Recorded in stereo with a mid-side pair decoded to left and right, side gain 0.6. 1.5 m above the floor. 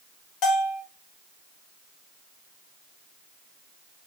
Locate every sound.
0.4 s a bell: 60° left, 1.0 m